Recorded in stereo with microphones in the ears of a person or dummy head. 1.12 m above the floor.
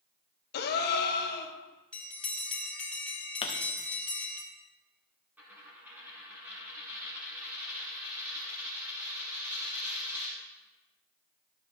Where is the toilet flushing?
I don't hear a toilet flushing.